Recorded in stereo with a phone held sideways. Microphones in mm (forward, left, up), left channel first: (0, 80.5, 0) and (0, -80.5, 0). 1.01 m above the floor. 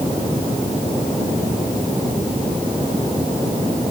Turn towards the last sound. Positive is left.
No sound to turn to.